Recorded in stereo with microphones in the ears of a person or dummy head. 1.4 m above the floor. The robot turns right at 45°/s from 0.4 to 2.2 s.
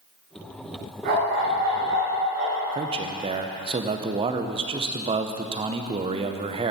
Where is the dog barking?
135° right, 5.5 m; by 2.6 s 80° right, 5.5 m.